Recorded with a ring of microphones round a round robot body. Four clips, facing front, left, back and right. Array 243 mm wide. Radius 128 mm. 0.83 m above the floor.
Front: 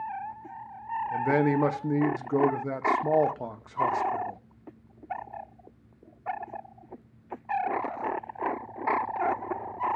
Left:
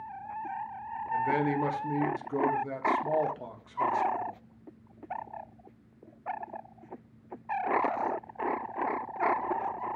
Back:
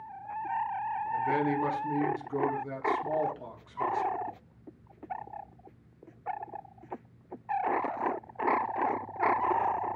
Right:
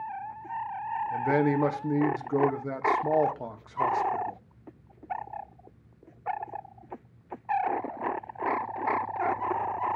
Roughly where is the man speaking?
Ahead right.